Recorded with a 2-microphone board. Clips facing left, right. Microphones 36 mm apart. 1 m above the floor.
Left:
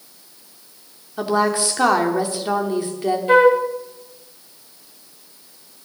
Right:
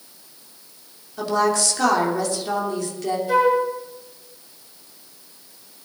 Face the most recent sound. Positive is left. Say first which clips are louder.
# left 5 dB
turn(degrees=50)  # may be behind; listen again after turning